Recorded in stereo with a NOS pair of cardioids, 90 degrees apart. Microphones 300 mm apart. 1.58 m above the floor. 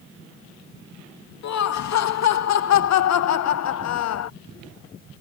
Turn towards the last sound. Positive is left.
turn(degrees=60)